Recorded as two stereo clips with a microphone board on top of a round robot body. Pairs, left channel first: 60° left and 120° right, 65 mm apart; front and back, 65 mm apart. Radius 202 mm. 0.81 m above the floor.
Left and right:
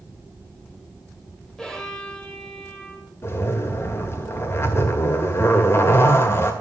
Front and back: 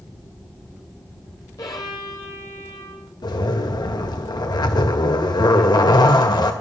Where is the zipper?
5° left, 1.8 m.